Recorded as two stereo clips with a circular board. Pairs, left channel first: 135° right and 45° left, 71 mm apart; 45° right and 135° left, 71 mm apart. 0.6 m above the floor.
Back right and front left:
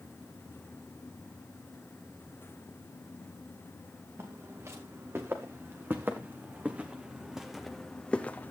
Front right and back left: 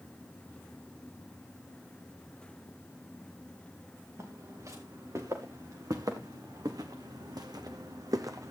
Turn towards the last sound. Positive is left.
turn(degrees=170)